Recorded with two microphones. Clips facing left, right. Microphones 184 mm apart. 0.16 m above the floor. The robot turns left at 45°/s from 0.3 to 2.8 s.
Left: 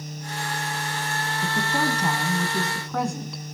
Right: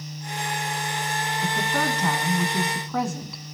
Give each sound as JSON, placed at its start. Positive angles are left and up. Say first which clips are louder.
{"t": 1.4, "sound": "a woman speaking", "louder": "left 1 dB", "side_deg": 20, "distance_m": 1.0}